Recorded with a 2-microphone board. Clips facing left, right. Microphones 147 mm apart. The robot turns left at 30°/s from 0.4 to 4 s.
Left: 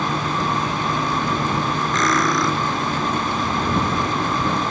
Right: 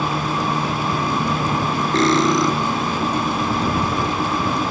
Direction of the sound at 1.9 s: 35° right (ahead or behind).